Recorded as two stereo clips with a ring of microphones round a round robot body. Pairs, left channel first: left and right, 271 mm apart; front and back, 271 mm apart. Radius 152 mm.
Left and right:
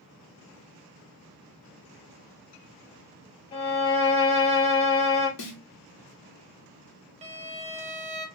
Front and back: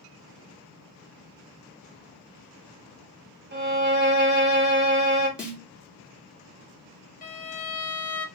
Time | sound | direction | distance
3.5 | a violin | 150° left | 1.0 m
5.4 | a snare drum | 95° left | 1.5 m
7.2 | a violin | 40° right | 0.8 m